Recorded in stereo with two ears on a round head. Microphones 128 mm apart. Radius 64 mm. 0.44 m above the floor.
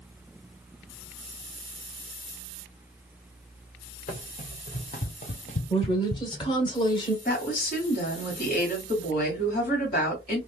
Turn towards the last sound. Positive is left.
turn(degrees=65)  # may be behind; listen again after turning